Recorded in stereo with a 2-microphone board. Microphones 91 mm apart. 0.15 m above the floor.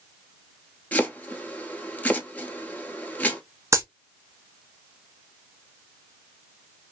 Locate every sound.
0.9 s chopping: 20° left (ahead or behind), 0.8 m
3.7 s a dropped coin: 35° right (ahead or behind), 0.7 m